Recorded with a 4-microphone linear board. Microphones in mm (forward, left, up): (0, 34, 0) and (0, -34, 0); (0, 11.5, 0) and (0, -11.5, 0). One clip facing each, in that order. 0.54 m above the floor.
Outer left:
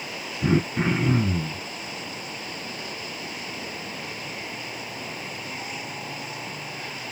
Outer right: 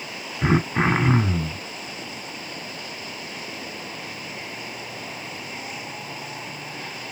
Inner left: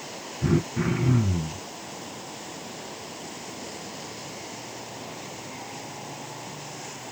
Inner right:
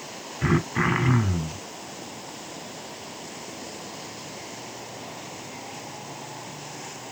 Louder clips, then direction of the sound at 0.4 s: Outer right 2 dB, inner right 2 dB; 75° right (ahead or behind).